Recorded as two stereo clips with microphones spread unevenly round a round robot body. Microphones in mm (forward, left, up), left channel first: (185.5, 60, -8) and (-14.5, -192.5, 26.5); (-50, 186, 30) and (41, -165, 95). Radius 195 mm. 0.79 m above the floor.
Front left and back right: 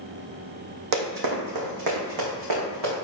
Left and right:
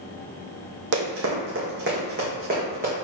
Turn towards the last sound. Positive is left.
turn(degrees=-140)